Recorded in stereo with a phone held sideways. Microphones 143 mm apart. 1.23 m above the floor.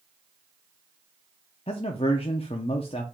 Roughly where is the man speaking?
Left.